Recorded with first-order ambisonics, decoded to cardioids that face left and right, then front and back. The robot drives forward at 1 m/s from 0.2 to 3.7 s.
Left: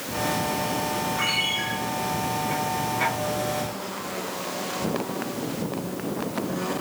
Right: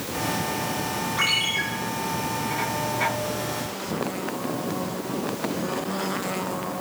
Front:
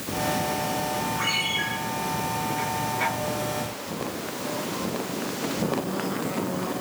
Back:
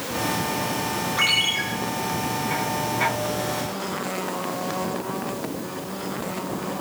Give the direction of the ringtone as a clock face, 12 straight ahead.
5 o'clock.